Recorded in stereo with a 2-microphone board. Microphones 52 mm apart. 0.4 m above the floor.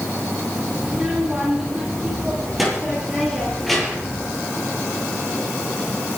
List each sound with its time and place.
0.8 s a child speaking: 5° right (ahead or behind), 9.5 m; by 4.2 s 5° left (ahead or behind), 8 m